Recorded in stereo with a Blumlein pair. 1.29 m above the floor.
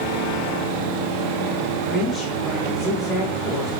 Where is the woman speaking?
20° left, 1.4 m.